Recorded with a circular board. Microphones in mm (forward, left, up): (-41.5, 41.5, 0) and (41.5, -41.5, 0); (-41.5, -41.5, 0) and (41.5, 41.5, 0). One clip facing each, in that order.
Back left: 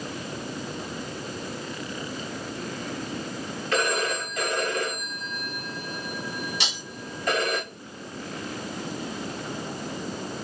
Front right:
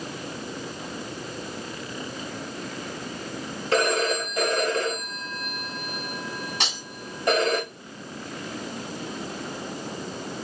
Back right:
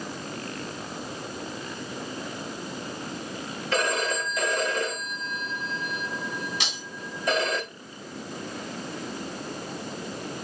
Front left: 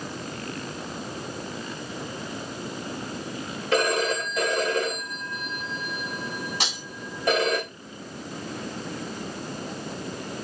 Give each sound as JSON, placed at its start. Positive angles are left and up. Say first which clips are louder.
{"t": 3.7, "sound": "a phone ringing", "louder": "front right 4 dB, front left 3 dB", "azimuth_deg": 15, "distance_m": 6.5}
{"t": 6.6, "sound": "breaking glass", "louder": "front right 2 dB, front left 3 dB", "azimuth_deg": 0, "distance_m": 4.0}